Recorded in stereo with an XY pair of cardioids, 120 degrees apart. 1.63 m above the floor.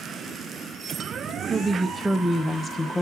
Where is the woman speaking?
15° right, 1.5 m; by 3.0 s 25° left, 1.5 m.